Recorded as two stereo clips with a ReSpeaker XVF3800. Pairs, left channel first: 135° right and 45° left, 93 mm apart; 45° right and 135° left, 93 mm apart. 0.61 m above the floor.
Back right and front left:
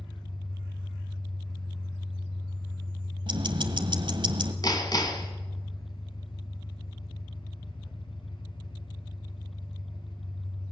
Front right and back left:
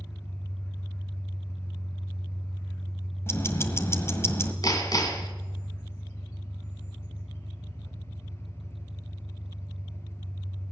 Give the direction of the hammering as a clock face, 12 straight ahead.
3 o'clock.